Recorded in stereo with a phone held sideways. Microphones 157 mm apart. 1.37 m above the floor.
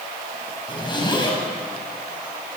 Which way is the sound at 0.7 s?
30° left (ahead or behind).